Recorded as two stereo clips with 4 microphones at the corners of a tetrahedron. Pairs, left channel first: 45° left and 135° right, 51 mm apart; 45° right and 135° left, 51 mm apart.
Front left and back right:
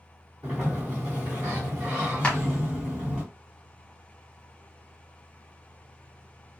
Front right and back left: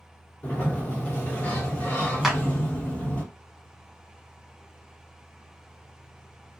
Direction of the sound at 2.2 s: 55° left.